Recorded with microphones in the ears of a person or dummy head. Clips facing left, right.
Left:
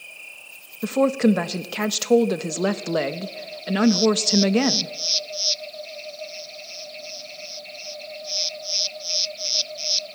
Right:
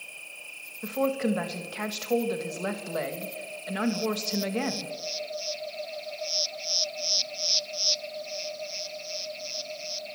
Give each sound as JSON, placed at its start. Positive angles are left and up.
{"t": 0.8, "sound": "a woman speaking", "side_deg": 60, "distance_m": 1.2}